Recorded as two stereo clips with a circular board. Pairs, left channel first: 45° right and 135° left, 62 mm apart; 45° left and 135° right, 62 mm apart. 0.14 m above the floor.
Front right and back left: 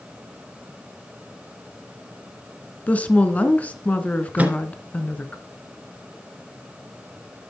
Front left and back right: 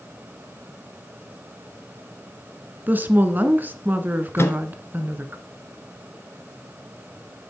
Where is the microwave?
80° left, 1.6 m.